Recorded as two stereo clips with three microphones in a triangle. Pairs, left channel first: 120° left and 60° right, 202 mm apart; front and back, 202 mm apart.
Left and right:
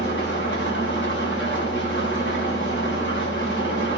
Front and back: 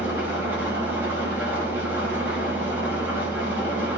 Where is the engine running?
100° left, 6 m.